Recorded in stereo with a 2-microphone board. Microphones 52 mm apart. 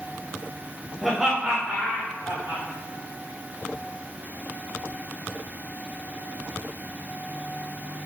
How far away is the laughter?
About 0.6 m.